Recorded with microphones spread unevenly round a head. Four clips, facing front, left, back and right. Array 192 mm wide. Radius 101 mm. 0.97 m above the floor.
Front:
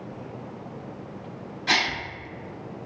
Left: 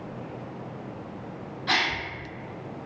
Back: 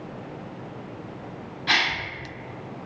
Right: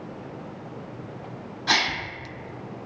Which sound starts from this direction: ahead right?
A gasp, at 1.7 s.